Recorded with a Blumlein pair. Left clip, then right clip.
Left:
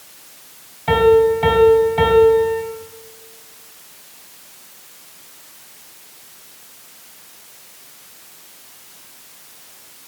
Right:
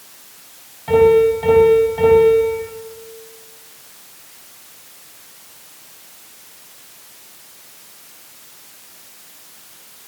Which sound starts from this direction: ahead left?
A piano, at 0.9 s.